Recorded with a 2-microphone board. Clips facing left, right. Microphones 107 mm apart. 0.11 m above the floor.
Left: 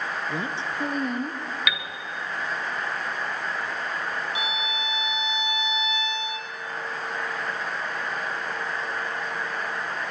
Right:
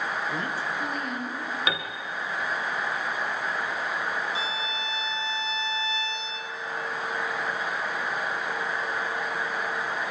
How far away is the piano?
About 2 m.